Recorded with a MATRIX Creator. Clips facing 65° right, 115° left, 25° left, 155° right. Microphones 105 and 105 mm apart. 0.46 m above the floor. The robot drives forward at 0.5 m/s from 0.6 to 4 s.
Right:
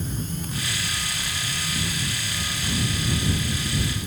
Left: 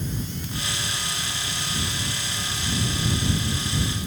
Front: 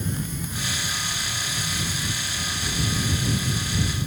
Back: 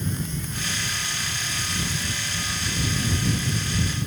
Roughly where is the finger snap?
No finger snap in this recording.